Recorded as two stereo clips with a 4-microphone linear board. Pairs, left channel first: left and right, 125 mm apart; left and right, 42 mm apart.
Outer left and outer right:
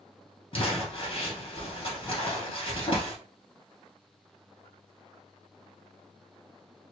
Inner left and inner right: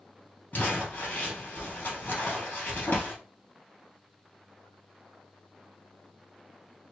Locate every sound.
0.5 s crumpling: 50° left (ahead or behind), 1.9 m